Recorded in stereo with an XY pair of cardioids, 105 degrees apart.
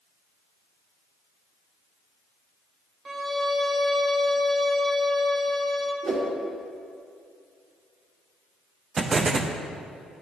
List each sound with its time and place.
3.0 s a violin: 30° right, 1.0 m
6.0 s a whoosh: 45° right, 1.8 m
9.0 s an explosion: 40° right, 0.5 m